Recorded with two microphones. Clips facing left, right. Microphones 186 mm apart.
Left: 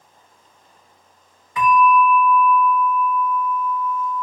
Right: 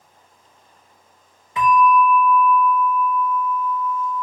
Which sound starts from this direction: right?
A bell, at 1.6 s.